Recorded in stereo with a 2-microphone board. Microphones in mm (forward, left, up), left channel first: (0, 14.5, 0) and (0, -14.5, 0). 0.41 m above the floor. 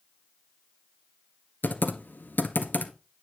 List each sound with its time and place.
1.6 s typing on a keyboard: 80° left, 1.3 m